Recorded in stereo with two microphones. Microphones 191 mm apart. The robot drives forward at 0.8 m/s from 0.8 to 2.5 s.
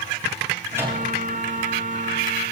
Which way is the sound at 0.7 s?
15° right (ahead or behind).